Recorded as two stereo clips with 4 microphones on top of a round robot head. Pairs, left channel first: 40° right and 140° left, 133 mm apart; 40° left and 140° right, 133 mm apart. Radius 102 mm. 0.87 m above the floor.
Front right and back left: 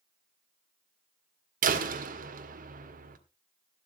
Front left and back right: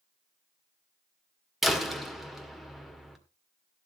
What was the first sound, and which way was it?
A door slam, 130° left.